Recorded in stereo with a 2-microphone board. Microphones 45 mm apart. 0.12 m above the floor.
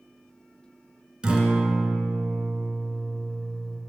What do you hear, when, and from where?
1.2 s a guitar: 20° right (ahead or behind), 1.8 m